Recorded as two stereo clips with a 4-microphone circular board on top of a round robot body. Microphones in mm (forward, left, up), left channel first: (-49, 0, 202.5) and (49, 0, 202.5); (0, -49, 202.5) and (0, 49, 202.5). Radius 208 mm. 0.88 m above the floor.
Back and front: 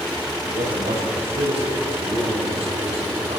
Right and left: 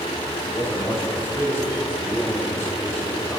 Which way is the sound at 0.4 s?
20° right.